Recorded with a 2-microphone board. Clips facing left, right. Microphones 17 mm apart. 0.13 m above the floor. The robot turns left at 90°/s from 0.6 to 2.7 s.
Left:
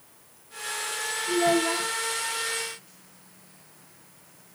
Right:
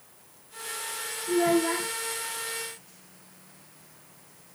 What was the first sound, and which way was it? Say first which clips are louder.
A child speaking: even; 5° left.